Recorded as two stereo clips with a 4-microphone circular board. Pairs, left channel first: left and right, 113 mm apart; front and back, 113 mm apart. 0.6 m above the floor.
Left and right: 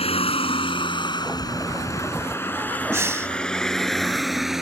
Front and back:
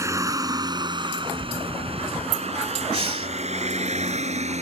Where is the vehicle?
115° left; by 4.6 s 175° right.